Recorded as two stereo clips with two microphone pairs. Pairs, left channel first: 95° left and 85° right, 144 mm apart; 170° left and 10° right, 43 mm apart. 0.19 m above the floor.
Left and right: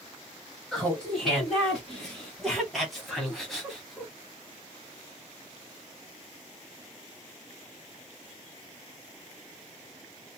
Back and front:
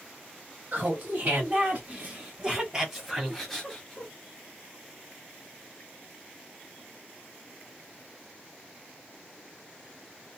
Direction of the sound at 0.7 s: Straight ahead.